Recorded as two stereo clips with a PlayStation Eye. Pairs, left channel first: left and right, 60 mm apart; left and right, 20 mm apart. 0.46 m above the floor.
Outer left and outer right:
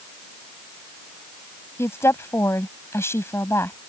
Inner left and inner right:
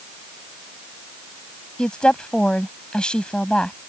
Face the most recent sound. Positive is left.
turn(degrees=50)  # may be behind; listen again after turning